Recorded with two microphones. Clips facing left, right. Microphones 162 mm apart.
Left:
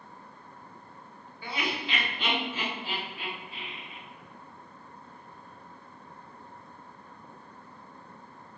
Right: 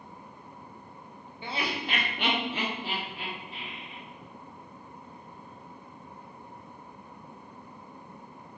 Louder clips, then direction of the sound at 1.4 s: Right 1 dB; 20° right (ahead or behind).